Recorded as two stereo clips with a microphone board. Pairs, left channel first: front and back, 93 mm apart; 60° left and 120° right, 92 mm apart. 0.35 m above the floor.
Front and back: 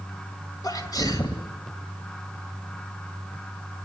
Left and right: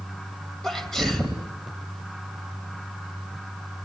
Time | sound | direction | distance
0.6 | a sneeze | 25° right | 2 m